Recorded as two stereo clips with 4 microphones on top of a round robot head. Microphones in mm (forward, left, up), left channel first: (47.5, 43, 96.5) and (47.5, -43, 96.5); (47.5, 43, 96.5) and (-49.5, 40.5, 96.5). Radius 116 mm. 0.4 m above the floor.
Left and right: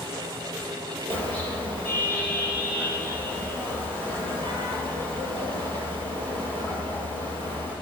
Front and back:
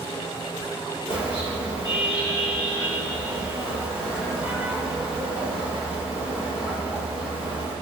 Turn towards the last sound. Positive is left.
turn(degrees=-115)